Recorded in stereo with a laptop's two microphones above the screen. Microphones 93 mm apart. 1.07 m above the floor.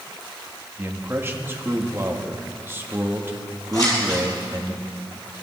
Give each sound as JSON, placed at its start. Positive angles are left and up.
{"t": 0.8, "sound": "a man speaking", "side_deg": -25, "distance_m": 1.8}
{"t": 3.7, "sound": "scissors", "side_deg": 40, "distance_m": 5.5}